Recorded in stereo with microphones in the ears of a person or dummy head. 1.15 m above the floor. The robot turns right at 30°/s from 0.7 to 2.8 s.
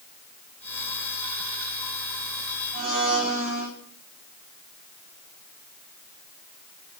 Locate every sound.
2.7 s a blender: 40° right (ahead or behind), 6 m; by 3.7 s 45° right (ahead or behind), 6 m